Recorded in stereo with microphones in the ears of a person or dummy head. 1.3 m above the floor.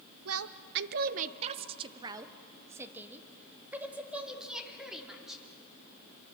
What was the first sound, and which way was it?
A woman speaking, 70° right (ahead or behind).